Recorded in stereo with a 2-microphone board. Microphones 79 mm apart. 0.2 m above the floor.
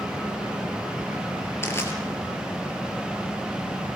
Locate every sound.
1.6 s crushing: 30° left (ahead or behind), 4.5 m